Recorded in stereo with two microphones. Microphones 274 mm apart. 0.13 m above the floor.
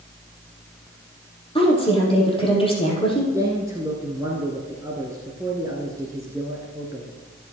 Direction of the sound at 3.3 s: 10° right (ahead or behind).